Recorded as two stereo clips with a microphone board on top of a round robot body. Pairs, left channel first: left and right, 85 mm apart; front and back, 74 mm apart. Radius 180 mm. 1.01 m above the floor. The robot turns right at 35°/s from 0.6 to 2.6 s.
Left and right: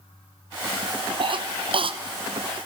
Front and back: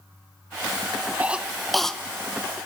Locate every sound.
1.2 s a cough: 110° right, 1.0 m; by 2.0 s 80° right, 1.0 m